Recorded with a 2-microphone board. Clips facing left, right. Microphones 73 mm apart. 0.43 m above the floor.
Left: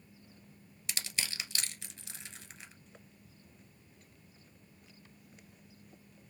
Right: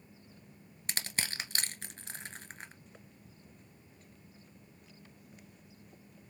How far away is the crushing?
About 1.1 m.